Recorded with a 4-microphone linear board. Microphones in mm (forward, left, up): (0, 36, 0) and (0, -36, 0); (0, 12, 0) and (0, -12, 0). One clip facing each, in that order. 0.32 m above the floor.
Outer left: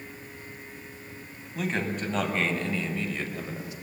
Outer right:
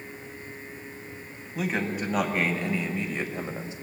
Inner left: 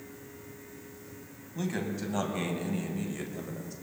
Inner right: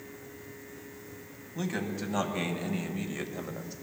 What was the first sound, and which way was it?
A man speaking, 5° right (ahead or behind).